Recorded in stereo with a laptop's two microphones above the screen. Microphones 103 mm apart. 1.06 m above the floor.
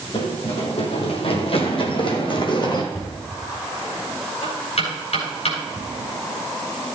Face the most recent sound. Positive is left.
turn(degrees=80)